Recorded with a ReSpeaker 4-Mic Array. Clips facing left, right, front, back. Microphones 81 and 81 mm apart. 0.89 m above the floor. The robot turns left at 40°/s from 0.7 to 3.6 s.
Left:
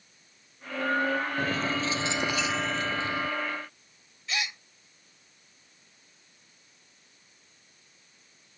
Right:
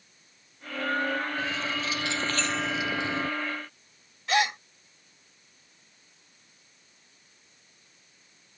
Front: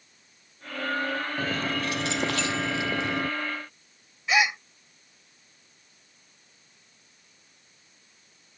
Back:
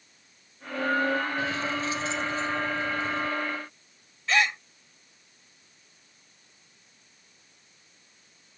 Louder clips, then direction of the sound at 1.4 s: Left 3 dB, even; 50° left.